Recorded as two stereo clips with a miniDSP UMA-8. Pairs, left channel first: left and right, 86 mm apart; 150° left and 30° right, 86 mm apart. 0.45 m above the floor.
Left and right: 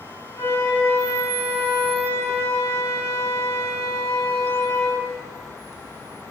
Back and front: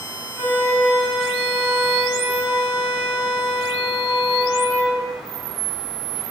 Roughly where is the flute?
Ahead left.